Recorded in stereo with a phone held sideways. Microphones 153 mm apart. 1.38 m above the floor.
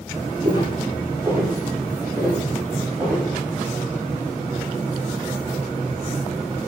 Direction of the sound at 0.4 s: 25° right (ahead or behind).